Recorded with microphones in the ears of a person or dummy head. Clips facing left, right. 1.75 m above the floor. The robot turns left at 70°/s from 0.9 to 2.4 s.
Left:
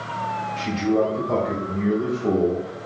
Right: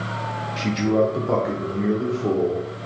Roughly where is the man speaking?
Right.